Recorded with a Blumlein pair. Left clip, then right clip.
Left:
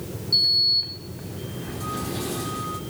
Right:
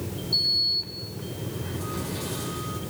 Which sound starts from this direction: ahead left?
A sliding door, at 0.3 s.